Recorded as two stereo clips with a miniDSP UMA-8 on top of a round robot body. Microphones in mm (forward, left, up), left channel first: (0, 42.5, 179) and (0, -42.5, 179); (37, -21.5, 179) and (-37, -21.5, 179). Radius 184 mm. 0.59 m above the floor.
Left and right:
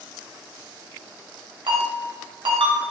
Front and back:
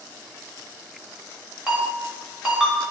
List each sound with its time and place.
1.7 s a ringtone: 100° right, 1.4 m